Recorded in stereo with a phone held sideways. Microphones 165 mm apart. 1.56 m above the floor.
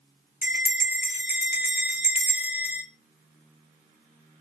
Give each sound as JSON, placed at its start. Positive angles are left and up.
{"t": 0.4, "sound": "a bell", "side_deg": 60, "distance_m": 0.9}